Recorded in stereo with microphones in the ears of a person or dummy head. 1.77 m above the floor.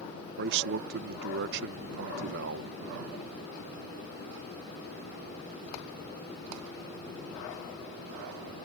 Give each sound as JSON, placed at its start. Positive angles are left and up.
{"t": 0.4, "sound": "a man speaking", "side_deg": -60}